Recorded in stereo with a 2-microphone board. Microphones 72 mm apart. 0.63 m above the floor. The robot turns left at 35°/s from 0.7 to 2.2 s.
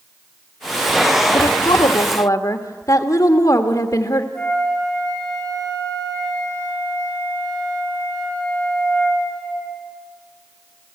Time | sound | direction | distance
1.3 | a woman speaking | 90° left | 1.6 m
4.3 | a flute | 10° left (ahead or behind) | 5.5 m